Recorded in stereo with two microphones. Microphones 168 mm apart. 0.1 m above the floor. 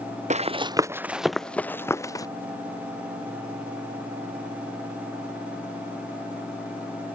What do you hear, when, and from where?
0.3 s running footsteps: 45° right (ahead or behind); by 2.2 s 20° left (ahead or behind)